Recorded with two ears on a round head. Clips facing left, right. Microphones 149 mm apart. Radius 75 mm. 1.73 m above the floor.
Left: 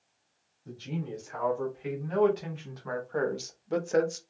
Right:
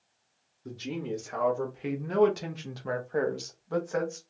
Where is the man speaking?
75° right (ahead or behind), 1.7 m; by 4.2 s 40° left (ahead or behind), 0.8 m.